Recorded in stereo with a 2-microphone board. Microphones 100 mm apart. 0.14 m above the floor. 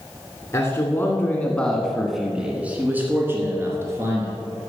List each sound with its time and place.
0.5 s a man speaking: 25° left (ahead or behind), 1.7 m; by 4.3 s 30° right (ahead or behind), 2.5 m